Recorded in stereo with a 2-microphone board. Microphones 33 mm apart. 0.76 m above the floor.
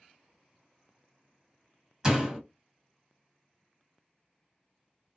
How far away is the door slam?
About 1.3 m.